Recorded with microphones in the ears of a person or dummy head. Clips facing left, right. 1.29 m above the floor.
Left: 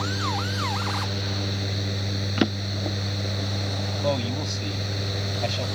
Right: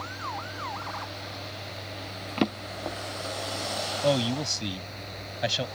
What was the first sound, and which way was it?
A fan, 75° left (ahead or behind).